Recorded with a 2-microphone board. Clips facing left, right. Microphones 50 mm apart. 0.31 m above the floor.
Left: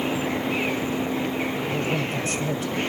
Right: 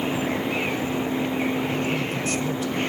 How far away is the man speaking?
About 1.7 m.